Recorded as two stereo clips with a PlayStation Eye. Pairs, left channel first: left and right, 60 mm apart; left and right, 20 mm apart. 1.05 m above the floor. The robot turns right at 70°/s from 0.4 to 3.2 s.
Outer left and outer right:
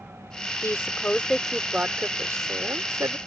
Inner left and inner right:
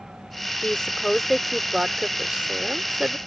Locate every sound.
0.6 s a woman speaking: 60° left (ahead or behind); by 3.2 s 65° right (ahead or behind)